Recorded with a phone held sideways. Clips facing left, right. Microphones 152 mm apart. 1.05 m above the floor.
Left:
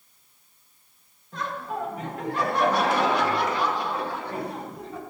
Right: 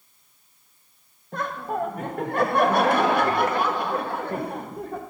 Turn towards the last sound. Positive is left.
turn(degrees=-55)  # may be behind; listen again after turning